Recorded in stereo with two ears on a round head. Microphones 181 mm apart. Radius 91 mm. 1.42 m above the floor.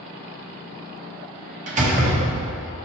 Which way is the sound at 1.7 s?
35° right (ahead or behind).